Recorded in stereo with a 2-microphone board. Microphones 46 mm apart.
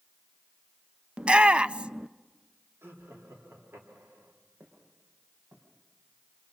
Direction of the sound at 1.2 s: 25° right (ahead or behind).